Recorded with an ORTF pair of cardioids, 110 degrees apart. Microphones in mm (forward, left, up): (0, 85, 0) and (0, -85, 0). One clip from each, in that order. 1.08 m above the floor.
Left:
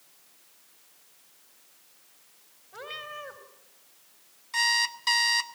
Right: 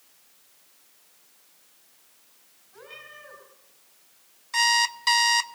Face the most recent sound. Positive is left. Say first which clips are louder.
# right 3 dB
turn(degrees=-15)